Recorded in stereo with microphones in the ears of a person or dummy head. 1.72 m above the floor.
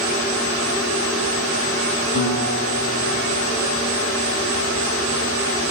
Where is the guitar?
50° left (ahead or behind), 7 m.